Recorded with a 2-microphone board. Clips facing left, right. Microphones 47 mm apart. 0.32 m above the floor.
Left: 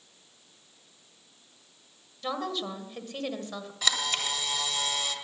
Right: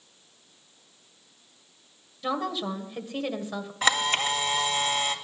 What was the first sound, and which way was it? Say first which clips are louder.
A woman speaking: right 3 dB; 5° right (ahead or behind).